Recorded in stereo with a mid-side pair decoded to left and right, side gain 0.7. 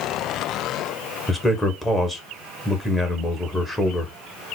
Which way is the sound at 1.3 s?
10° left.